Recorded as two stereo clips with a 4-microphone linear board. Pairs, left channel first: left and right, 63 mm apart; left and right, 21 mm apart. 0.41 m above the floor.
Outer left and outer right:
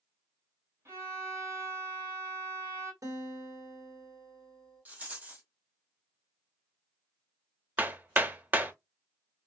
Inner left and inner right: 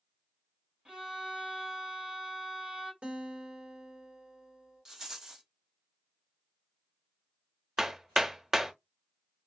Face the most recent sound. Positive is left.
turn(degrees=-30)  # may be behind; listen again after turning